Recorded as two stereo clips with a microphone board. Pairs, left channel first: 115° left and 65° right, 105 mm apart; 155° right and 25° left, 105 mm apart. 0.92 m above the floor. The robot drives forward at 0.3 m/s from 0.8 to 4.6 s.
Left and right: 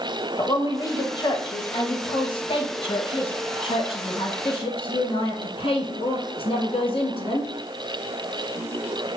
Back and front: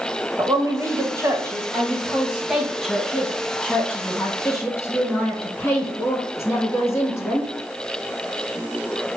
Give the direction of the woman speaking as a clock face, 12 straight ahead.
10 o'clock.